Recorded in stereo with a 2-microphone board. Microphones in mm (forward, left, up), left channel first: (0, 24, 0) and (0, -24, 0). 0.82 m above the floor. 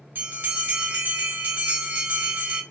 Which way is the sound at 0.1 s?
45° right (ahead or behind).